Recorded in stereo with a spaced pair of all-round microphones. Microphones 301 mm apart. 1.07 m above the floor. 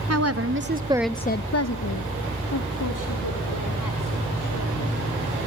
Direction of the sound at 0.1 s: 55° right (ahead or behind).